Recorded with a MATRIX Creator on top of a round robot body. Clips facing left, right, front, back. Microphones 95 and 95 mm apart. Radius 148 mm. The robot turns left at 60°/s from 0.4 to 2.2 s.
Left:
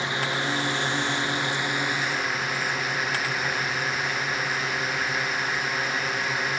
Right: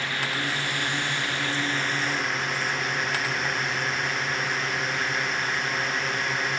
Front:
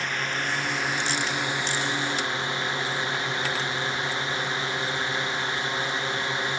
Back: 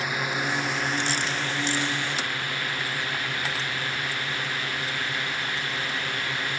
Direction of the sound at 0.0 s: 115° left.